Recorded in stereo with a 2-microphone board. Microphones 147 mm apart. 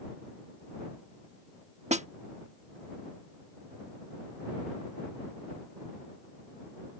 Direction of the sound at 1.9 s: 50° right (ahead or behind).